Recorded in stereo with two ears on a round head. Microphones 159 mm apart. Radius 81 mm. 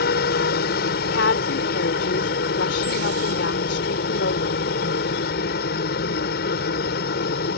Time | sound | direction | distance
0.0 | a helicopter | 60° left (ahead or behind) | ?
1.1 | a woman speaking | 75° left (ahead or behind) | ?